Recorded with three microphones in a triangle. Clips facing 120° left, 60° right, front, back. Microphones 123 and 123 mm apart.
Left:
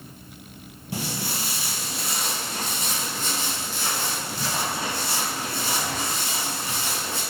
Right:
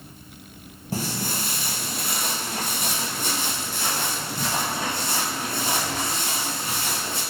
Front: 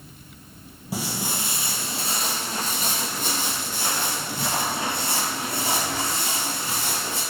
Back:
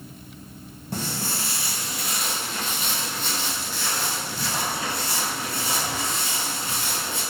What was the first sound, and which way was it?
Footsteps, 80° right.